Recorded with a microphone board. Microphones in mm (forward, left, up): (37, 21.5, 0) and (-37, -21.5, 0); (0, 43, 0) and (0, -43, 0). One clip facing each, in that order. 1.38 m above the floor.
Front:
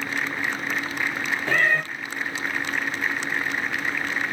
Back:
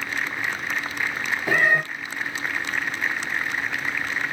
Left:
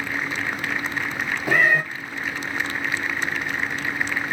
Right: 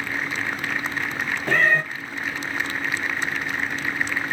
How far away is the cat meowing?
About 0.5 m.